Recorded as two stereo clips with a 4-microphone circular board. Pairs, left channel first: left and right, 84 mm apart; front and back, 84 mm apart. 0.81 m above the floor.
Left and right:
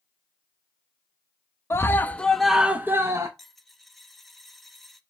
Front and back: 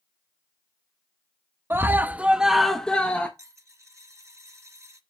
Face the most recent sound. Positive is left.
turn(degrees=175)